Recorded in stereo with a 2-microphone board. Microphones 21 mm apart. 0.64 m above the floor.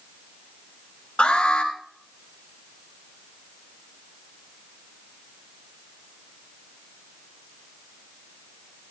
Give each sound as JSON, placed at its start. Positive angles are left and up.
{"t": 1.2, "sound": "an alarm", "side_deg": 65, "distance_m": 4.5}